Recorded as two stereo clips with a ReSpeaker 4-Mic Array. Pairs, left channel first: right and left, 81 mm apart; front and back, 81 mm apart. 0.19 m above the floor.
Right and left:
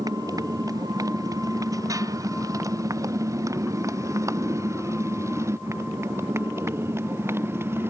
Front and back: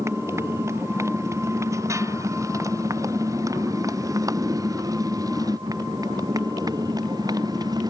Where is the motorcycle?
130° left; by 7.9 s 150° left.